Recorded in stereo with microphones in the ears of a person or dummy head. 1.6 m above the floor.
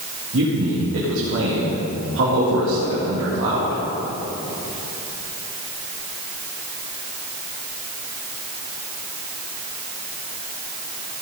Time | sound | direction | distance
0.3 | a man speaking | 80° right | 2.5 m